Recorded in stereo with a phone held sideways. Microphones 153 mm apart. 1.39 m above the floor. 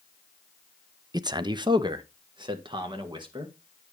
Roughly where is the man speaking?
Right.